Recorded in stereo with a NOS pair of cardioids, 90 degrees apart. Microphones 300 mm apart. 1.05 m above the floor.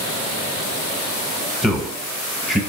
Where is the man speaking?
Straight ahead, 0.8 m.